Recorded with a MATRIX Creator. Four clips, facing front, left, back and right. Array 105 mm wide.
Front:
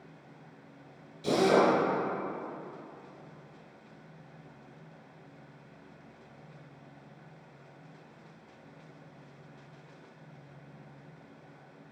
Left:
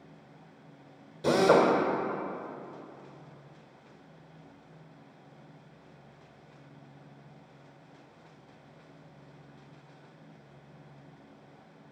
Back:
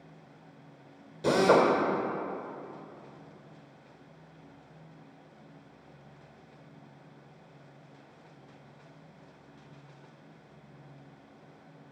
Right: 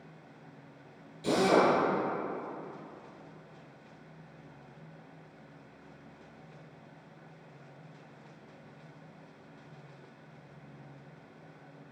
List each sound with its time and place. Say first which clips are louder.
1.2 s a drill: left 3 dB, back 2 dB; 145° left, 1.6 m